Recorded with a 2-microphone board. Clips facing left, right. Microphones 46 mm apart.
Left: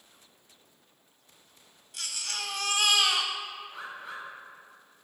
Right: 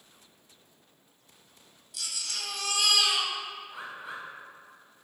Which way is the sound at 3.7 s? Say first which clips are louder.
Even; 10° right (ahead or behind).